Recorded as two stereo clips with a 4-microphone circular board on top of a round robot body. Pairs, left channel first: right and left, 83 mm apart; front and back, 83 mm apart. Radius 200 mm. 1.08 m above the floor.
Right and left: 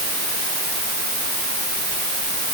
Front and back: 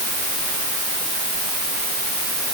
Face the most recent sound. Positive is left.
No sound to turn to.